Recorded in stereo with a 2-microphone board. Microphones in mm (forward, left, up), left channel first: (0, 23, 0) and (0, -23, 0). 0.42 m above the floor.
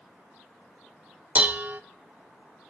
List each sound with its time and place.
1.4 s dishes clattering: 35° right (ahead or behind), 0.6 m